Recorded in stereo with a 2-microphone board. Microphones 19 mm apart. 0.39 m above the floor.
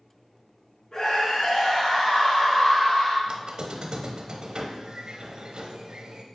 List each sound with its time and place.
0.9 s a scream: 40° left (ahead or behind), 3 m; by 3.2 s 55° left (ahead or behind), 2 m
3.3 s a squeak: 60° right (ahead or behind), 0.9 m